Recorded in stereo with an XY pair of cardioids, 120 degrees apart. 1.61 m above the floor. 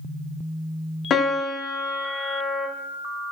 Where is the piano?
50° left, 2.0 m.